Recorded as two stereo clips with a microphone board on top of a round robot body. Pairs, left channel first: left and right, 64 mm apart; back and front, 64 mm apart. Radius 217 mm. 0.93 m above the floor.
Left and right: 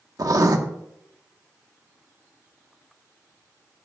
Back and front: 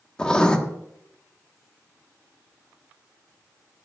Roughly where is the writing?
Right.